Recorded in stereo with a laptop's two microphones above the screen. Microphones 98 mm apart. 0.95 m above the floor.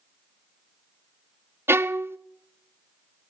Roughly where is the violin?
Right.